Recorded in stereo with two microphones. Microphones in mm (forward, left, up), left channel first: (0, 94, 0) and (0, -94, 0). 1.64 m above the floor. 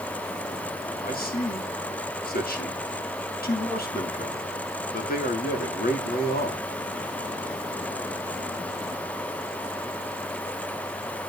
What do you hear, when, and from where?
1.0 s a man speaking: 55° left (ahead or behind), 2 m